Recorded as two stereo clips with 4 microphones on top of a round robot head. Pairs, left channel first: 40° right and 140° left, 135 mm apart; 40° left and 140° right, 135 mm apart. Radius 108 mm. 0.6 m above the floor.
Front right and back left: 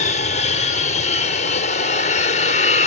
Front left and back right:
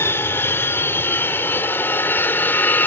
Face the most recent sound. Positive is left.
turn(degrees=-35)